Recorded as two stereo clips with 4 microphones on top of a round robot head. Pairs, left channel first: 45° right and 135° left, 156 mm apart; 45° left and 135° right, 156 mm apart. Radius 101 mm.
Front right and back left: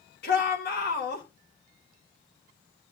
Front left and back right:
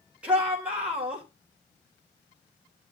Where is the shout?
55° right, 3.5 m.